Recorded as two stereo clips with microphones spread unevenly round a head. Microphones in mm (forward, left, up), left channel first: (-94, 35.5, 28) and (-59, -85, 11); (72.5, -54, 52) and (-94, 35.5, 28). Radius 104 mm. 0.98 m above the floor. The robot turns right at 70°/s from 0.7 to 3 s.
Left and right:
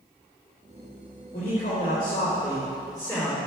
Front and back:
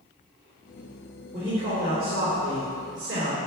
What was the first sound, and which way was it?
A man speaking, 60° left.